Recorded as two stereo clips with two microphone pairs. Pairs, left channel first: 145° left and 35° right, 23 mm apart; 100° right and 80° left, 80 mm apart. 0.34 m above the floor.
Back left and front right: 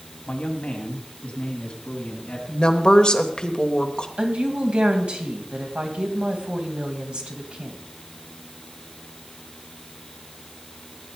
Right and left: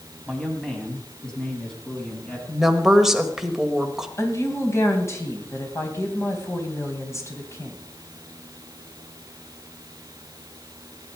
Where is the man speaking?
175° left, 2.5 m; by 2.4 s 175° right, 4 m.